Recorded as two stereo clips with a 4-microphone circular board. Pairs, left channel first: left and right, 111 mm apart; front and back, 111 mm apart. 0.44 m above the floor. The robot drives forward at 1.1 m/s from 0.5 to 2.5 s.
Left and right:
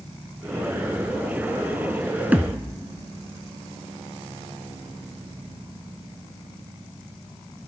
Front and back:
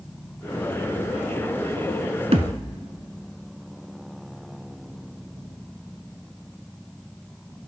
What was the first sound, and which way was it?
A thud, 165° right.